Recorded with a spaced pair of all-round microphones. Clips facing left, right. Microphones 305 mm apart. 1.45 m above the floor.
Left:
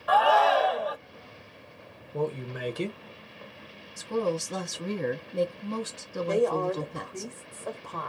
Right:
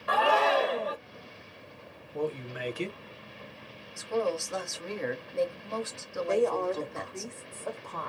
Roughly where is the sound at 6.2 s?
Centre.